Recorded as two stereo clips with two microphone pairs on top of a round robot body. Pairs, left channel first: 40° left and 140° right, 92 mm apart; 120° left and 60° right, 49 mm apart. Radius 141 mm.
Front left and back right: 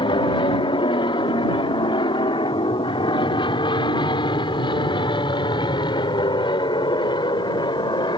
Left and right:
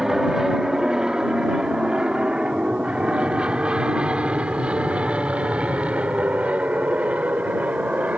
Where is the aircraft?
20° left; by 8.2 s 5° left.